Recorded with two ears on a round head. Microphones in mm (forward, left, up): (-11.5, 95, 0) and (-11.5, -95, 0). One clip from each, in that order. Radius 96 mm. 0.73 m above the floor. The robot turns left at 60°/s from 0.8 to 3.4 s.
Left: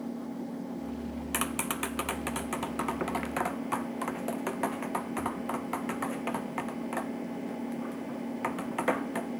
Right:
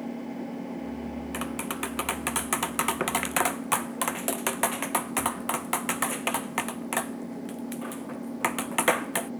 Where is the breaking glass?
No breaking glass in this recording.